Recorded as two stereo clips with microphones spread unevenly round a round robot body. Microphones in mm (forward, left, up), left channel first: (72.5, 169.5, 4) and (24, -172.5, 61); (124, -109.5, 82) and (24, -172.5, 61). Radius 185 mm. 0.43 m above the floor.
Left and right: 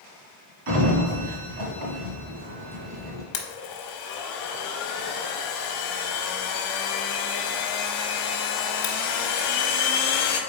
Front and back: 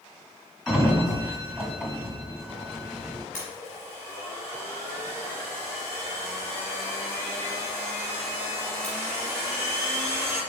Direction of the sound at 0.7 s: 60° right.